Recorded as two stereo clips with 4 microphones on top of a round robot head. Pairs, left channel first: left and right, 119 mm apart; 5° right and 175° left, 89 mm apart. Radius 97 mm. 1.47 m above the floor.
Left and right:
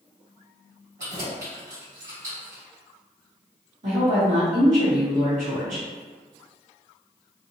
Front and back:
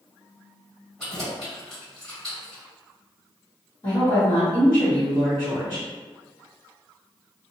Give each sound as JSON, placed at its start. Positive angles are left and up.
{"t": 1.0, "sound": "keys jangling", "azimuth_deg": -90, "distance_m": 1.4}
{"t": 3.8, "sound": "a woman speaking", "azimuth_deg": -60, "distance_m": 1.1}